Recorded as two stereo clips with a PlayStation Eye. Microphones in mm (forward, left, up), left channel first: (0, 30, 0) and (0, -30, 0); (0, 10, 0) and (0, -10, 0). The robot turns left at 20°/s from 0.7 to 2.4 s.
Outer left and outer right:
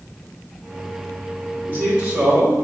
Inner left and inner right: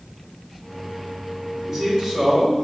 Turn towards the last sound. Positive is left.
turn(degrees=-15)  # may be behind; listen again after turning